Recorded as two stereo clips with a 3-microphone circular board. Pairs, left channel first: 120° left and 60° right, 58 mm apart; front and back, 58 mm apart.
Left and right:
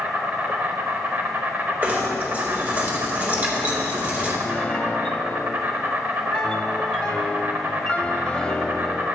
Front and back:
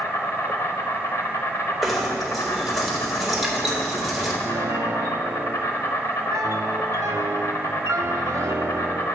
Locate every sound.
0.0 s an insect: 10° right, 0.8 m
1.8 s knocking: 95° right, 1.3 m
4.4 s a piano: 165° right, 0.5 m